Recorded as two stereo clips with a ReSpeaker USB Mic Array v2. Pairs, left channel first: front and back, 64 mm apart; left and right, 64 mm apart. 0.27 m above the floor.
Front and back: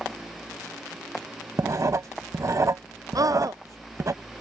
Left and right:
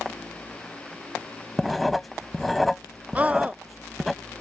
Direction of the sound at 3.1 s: 155° right.